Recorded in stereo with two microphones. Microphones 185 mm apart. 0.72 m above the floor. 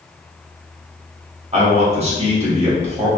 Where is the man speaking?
35° right (ahead or behind), 1.0 m.